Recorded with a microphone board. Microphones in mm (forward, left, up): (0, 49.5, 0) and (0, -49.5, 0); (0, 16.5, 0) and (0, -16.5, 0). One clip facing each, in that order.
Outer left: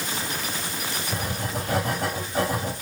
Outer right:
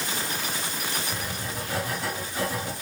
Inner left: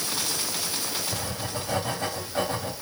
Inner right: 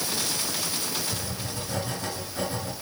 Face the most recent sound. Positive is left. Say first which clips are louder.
# outer left 4 dB, inner left 2 dB
turn(degrees=55)  # may be behind; listen again after turning